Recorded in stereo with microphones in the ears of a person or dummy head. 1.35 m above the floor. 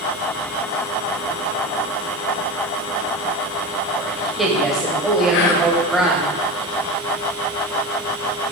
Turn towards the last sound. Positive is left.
turn(degrees=60)  # may be behind; listen again after turning